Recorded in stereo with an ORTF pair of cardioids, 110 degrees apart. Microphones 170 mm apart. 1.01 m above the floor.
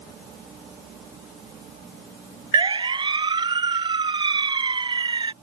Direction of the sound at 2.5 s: 25° right.